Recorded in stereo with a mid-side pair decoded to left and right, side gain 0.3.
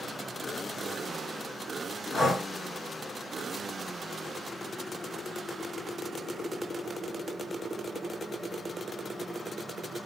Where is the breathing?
60° left, 2 m.